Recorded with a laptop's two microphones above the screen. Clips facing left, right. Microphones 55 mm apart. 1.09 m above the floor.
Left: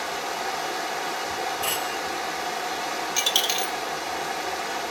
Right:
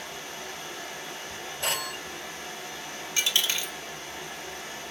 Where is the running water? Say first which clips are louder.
Left 10 dB; 80° left, 0.7 m.